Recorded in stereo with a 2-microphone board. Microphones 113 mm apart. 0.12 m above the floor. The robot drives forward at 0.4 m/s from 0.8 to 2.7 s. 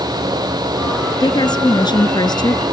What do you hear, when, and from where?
1.2 s a woman speaking: 35° left (ahead or behind)